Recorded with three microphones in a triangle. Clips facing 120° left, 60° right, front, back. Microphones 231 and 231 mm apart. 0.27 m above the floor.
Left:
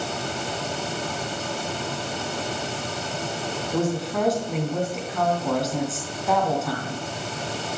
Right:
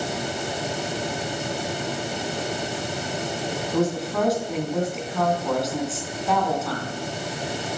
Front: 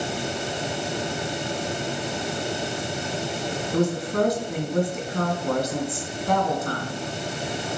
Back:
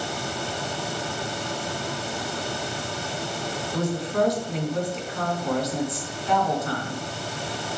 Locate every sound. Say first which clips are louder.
3.7 s a woman speaking: right 1 dB, front 3 dB; 30° left, 3 m